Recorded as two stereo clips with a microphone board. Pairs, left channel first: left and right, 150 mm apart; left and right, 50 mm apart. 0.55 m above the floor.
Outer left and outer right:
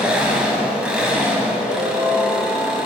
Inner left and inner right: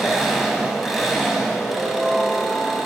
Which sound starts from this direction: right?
A ringtone, at 1.7 s.